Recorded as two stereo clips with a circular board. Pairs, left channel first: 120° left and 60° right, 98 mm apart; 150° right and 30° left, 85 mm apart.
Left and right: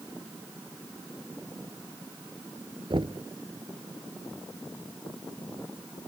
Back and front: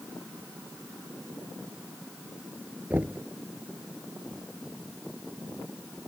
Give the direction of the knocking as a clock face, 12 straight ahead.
1 o'clock.